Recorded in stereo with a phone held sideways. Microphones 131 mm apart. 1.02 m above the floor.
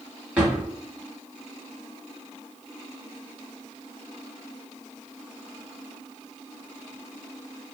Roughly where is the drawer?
Centre.